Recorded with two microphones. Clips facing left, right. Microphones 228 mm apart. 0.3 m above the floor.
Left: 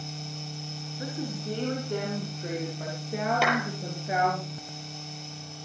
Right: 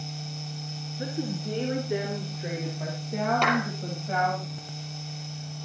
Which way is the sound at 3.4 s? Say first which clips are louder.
Right 1 dB; 5° left (ahead or behind).